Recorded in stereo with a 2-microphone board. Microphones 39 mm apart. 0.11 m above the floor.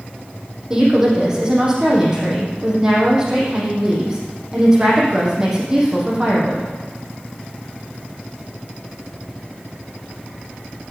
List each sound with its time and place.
0.7 s a woman speaking: 20° right (ahead or behind), 5 m